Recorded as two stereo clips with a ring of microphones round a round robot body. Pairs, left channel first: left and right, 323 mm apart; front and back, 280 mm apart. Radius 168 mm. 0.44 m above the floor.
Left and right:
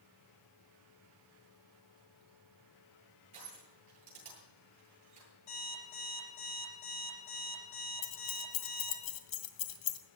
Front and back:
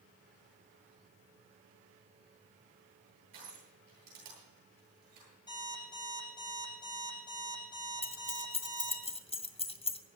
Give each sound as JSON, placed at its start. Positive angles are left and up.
{"t": 3.3, "sound": "crushing", "azimuth_deg": -160, "distance_m": 9.5}
{"t": 5.5, "sound": "an alarm clock", "azimuth_deg": 75, "distance_m": 8.5}
{"t": 8.0, "sound": "keys jangling", "azimuth_deg": 70, "distance_m": 1.5}